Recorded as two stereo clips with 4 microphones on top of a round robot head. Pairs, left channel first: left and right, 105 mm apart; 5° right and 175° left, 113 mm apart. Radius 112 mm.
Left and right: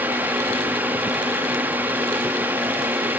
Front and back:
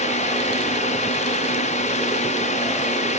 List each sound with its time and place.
0.0 s a drone: 15° right